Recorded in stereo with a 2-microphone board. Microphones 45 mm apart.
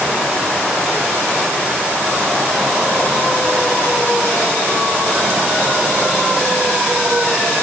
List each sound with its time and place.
Only background noise.